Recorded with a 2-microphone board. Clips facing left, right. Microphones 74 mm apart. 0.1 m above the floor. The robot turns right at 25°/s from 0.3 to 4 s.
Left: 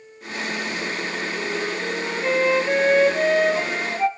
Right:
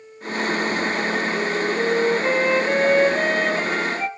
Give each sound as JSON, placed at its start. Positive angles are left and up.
{"t": 1.4, "sound": "a flute", "azimuth_deg": -45, "distance_m": 1.3}